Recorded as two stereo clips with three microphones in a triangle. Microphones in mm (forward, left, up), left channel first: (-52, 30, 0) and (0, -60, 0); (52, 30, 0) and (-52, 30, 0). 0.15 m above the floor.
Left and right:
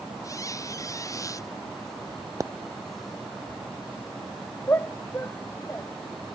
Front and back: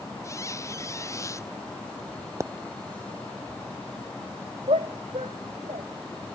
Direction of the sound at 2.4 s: 120° right.